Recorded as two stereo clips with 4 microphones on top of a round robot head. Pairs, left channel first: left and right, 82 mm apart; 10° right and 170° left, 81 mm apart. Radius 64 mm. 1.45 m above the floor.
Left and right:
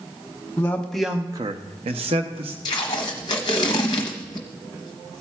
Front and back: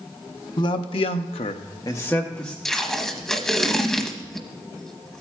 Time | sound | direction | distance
0.6 | a man speaking | 20° left | 0.9 m
2.6 | tape being pulled | 75° left | 0.8 m